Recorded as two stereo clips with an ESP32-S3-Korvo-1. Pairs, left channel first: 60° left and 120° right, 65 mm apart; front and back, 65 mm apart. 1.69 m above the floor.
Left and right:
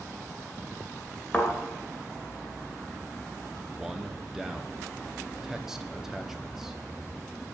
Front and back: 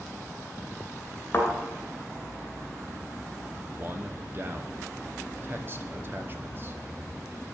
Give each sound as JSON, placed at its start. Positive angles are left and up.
{"t": 1.3, "sound": "a thud", "azimuth_deg": 0, "distance_m": 2.0}
{"t": 3.7, "sound": "a man speaking", "azimuth_deg": 160, "distance_m": 0.6}